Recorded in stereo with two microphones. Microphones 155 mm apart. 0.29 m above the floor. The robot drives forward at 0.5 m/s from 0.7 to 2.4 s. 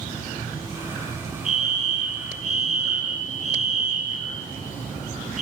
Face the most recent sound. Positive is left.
turn(degrees=-50)  # may be behind; listen again after turning